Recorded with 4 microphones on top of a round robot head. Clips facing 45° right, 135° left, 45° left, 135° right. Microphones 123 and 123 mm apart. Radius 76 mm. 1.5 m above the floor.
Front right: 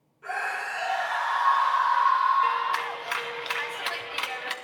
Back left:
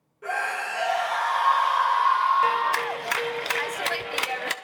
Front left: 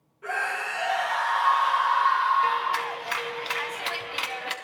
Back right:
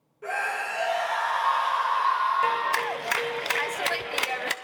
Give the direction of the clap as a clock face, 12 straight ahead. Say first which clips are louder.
Back left 3 dB, even; 6 o'clock.